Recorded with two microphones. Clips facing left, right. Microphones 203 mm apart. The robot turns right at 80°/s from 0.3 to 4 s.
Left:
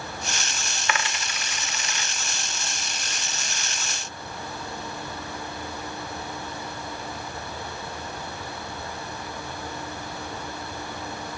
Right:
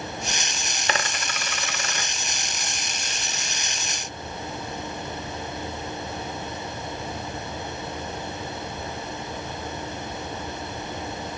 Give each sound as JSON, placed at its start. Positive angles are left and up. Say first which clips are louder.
{"t": 0.9, "sound": "a dropped coin", "louder": "right 2 dB", "side_deg": -35, "distance_m": 0.6}